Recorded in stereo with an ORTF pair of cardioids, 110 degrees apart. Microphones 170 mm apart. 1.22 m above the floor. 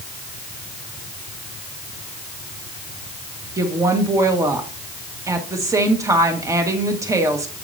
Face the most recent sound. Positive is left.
turn(degrees=-20)